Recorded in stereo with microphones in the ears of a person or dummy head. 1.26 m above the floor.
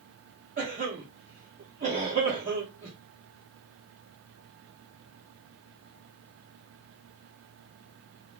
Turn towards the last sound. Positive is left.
turn(degrees=-40)  # may be behind; listen again after turning